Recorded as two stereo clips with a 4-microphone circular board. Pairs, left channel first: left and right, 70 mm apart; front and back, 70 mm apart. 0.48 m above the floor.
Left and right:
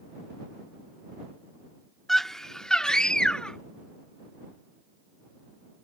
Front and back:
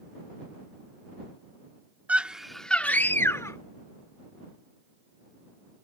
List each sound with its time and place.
2.1 s a scream: 170° left; by 3.6 s 15° left